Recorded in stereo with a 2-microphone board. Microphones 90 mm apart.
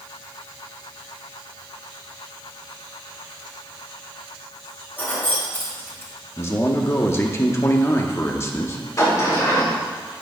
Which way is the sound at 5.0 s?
20° left (ahead or behind).